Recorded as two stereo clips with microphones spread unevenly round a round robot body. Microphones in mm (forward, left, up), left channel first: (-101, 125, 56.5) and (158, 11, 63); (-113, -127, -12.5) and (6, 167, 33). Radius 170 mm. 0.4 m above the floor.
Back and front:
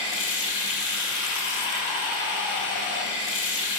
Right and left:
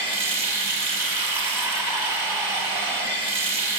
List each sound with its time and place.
0.0 s running water: 145° left, 2 m